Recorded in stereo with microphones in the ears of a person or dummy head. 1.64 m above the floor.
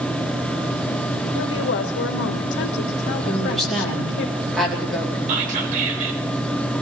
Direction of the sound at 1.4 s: 65° left (ahead or behind).